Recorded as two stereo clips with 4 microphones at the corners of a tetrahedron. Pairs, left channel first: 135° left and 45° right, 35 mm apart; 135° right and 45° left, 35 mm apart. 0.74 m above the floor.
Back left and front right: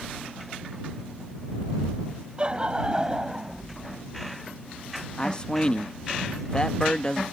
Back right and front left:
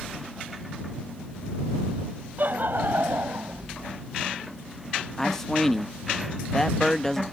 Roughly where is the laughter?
Ahead.